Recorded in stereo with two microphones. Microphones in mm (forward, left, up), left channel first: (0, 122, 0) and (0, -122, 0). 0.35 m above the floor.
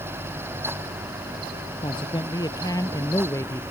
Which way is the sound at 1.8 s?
20° left (ahead or behind).